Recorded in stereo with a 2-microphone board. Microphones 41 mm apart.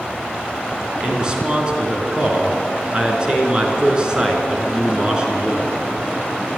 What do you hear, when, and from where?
1.0 s a man speaking: 20° right (ahead or behind), 4 m